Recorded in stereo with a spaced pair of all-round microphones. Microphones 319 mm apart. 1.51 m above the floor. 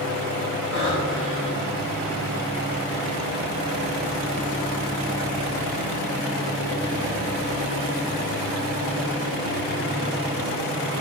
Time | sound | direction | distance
0.7 | breathing | 40° right (ahead or behind) | 4.5 m